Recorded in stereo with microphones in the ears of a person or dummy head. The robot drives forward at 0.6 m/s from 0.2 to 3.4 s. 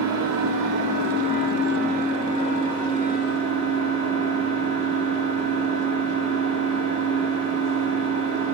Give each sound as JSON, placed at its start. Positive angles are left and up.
{"t": 0.0, "sound": "an engine running", "side_deg": -80, "distance_m": 1.4}